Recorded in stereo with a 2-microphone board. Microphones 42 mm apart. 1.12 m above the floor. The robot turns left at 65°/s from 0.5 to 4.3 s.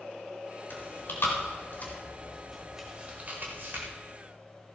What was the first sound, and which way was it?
Chewing, 55° left (ahead or behind).